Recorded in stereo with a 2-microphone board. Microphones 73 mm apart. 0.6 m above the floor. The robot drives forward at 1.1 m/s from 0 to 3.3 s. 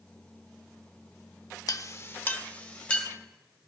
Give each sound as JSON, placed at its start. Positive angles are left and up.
{"t": 1.7, "sound": "a clink", "side_deg": 60, "distance_m": 0.6}